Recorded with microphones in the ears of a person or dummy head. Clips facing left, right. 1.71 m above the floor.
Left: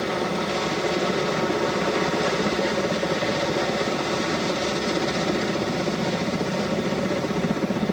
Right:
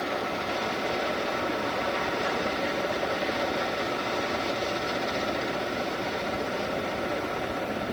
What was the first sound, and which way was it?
A helicopter, 50° left (ahead or behind).